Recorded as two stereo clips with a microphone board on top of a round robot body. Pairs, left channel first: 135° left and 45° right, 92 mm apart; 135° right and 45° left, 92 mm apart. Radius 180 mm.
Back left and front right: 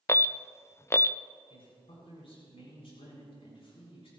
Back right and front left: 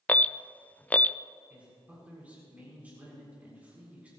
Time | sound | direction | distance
0.1 | an alarm | 165° left | 0.6 m
1.5 | a man speaking | 120° left | 7 m